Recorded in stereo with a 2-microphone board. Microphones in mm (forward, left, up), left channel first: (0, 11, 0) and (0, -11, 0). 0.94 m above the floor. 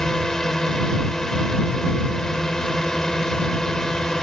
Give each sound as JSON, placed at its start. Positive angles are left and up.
{"t": 0.0, "sound": "a drone", "side_deg": 25}